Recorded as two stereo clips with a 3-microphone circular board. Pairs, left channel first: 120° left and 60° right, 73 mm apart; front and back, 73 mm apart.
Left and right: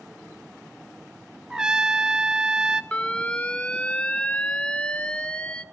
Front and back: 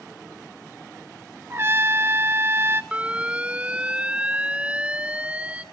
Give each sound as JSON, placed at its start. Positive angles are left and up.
{"t": 1.5, "sound": "a trumpet", "azimuth_deg": -135, "distance_m": 0.7}
{"t": 2.9, "sound": "an alarm", "azimuth_deg": 155, "distance_m": 0.9}